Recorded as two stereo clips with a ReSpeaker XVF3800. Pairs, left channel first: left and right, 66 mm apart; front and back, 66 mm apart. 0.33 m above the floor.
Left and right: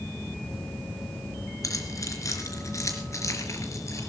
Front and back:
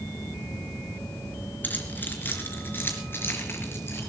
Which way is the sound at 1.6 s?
60° left.